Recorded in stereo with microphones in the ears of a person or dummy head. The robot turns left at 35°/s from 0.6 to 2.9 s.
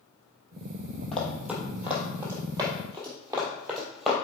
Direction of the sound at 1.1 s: 5° left (ahead or behind).